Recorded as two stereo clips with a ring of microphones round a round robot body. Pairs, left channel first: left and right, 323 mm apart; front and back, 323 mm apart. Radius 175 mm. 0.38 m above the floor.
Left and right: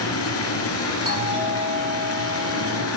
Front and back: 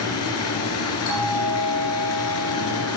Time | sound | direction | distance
0.0 | running water | 45° left | 2.5 m
1.1 | a doorbell | 20° right | 6.5 m